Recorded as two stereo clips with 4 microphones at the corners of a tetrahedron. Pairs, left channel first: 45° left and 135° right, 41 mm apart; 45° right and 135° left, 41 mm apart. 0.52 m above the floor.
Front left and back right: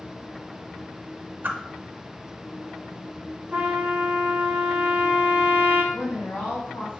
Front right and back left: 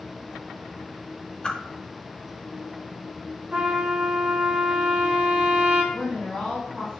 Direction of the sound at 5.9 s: 40° left.